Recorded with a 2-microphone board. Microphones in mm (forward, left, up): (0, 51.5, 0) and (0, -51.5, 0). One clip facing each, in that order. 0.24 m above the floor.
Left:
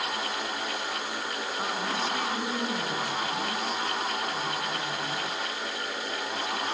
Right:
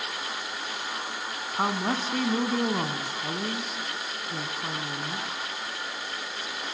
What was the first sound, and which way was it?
A woman speaking, 55° right (ahead or behind).